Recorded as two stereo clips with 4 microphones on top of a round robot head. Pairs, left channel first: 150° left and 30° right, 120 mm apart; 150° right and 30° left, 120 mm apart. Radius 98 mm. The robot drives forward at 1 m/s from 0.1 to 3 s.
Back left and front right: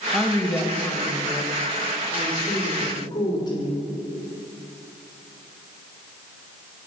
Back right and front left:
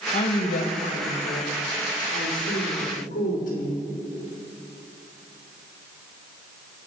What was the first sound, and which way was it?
A woman speaking, 120° right.